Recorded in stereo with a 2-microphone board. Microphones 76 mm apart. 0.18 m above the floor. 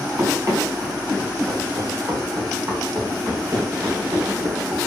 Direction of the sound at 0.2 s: 45° right (ahead or behind).